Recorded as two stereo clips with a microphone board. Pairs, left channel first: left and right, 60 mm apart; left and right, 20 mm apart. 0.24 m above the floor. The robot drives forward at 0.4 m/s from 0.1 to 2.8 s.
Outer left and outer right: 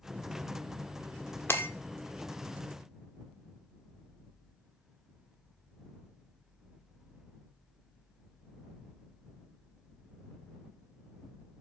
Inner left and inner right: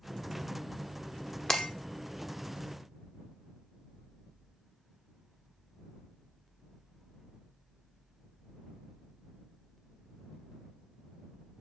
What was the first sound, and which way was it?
Breaking glass, 35° left (ahead or behind).